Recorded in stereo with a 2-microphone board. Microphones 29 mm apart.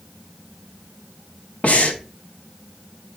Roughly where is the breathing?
Left.